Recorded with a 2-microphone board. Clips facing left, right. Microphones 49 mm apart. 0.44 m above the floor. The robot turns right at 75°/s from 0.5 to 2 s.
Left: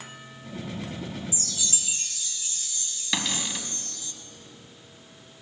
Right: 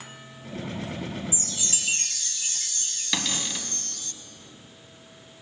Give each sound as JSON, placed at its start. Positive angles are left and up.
{"t": 1.3, "sound": "a chime", "azimuth_deg": -160, "distance_m": 0.7}
{"t": 3.1, "sound": "a cupboard door", "side_deg": 5, "distance_m": 1.0}